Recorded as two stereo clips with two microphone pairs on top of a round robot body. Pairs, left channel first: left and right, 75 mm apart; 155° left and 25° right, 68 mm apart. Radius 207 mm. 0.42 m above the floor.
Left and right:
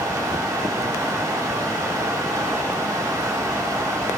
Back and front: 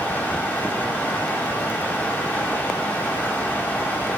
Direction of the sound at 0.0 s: 135° right.